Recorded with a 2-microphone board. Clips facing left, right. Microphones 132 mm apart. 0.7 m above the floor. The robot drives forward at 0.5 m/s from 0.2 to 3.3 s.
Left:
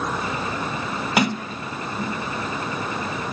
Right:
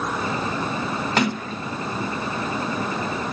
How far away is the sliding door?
About 0.6 m.